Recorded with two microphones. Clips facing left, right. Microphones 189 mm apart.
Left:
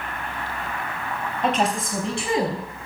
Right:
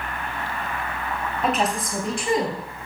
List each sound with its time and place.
1.4 s a woman speaking: 5° right (ahead or behind), 4.5 m; by 2.6 s 5° left (ahead or behind), 3 m